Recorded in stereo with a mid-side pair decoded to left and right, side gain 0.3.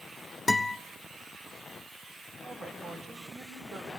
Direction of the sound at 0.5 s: 25° left.